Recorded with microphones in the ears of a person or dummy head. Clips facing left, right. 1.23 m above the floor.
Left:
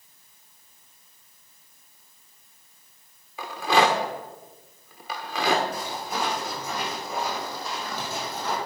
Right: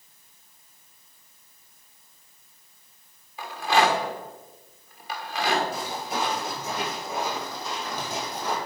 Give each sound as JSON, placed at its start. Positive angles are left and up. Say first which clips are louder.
{"t": 3.4, "sound": "a rattle", "louder": "left 1 dB", "side_deg": 65, "distance_m": 1.4}
{"t": 5.7, "sound": "footsteps", "louder": "right 1 dB", "side_deg": -35, "distance_m": 4.5}